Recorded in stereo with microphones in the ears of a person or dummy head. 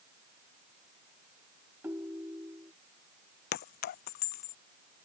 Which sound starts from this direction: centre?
A ringtone, at 1.8 s.